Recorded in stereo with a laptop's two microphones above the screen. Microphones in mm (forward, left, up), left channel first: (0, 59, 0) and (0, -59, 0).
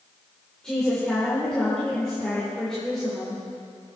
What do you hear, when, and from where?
0.6 s a woman speaking: 5° left (ahead or behind), 3.5 m